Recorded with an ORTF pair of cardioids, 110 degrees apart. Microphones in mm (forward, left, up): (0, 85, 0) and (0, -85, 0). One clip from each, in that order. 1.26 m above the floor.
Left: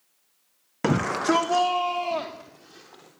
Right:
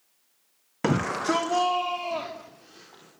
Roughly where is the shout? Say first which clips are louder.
Left 2 dB; ahead.